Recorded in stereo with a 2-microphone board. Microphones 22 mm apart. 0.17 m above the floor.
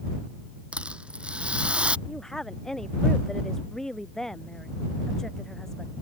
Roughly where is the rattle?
Right.